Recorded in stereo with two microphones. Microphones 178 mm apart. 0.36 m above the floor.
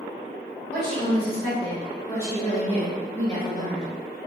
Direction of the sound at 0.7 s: 40° left (ahead or behind).